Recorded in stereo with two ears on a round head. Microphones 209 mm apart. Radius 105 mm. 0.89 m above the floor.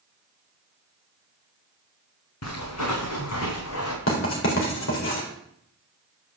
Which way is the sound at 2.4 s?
75° left (ahead or behind).